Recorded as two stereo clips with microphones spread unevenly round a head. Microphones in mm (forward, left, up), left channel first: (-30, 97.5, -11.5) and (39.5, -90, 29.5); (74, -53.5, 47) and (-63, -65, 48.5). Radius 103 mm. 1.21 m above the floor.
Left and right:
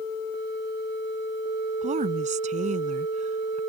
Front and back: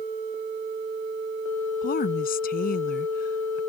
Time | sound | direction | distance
1.8 | a woman speaking | 15° right | ?